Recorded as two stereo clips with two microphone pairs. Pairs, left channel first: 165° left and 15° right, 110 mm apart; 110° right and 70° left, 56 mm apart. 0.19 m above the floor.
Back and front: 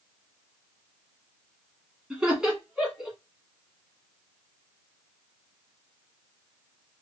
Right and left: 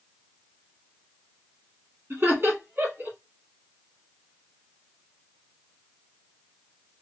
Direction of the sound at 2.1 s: 65° left.